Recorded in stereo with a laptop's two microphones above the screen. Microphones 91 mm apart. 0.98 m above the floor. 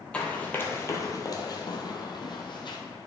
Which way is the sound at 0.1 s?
10° left (ahead or behind).